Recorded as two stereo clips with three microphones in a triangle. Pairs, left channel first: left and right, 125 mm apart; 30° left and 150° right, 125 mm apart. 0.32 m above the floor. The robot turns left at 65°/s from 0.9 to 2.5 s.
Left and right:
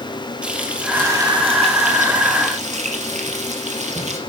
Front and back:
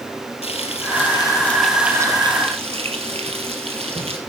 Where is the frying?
10° right, 2.5 m; by 4.2 s 115° right, 2.5 m.